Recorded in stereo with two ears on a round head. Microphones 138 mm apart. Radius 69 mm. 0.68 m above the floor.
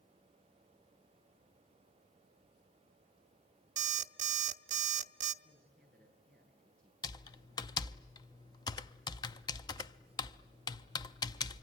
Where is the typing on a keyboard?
25° left (ahead or behind), 0.5 m.